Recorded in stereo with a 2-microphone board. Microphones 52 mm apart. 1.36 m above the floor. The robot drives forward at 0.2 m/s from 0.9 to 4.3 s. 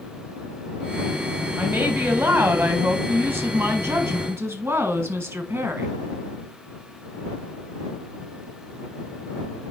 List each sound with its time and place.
1.6 s a woman speaking: 45° right (ahead or behind), 1.9 m; by 5.9 s 60° right (ahead or behind), 1.5 m